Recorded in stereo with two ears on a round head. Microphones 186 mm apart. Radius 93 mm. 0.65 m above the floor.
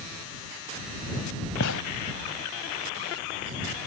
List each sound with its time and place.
1.6 s a gunshot: 70° left (ahead or behind)